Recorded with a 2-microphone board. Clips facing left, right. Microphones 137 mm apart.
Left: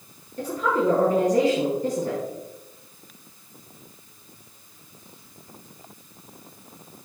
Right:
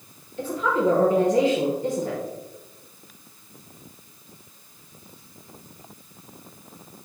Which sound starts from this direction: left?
A woman speaking, at 0.4 s.